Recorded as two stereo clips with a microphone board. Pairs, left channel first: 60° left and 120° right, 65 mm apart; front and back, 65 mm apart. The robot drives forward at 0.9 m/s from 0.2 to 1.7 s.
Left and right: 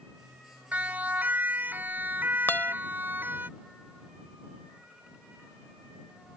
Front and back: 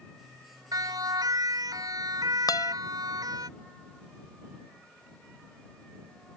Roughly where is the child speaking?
No child speaking in this recording.